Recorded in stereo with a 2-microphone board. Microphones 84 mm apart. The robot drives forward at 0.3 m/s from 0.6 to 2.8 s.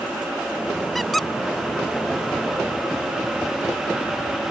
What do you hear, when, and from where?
0.9 s a squeak: centre (ahead or behind)